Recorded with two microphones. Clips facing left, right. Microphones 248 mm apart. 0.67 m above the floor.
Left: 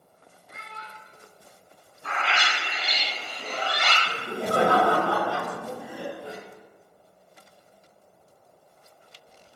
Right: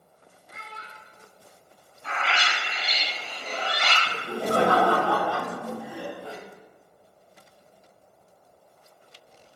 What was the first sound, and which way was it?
A child speaking, 50° left (ahead or behind).